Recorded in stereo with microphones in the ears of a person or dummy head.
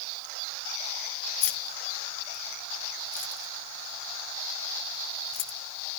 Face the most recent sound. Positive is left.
turn(degrees=50)  # may be behind; listen again after turning